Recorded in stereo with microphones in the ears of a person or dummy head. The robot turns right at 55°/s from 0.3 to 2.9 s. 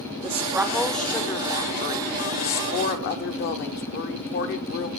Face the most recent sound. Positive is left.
turn(degrees=110)